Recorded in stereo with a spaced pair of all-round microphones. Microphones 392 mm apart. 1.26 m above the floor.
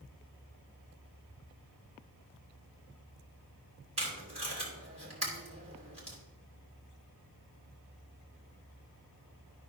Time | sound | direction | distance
4.0 | tape being pulled | 40° right (ahead or behind) | 3 m